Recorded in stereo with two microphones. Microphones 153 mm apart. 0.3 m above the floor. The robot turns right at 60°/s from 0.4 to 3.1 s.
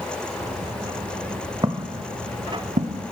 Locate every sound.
1.6 s footsteps: 25° right (ahead or behind), 1.3 m; by 3.1 s 70° right (ahead or behind), 1.5 m